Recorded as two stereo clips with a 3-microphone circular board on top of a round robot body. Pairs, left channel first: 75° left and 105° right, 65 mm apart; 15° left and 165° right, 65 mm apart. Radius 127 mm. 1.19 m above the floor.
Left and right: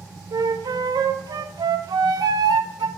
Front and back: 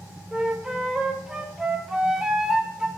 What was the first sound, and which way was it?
A flute, 85° right.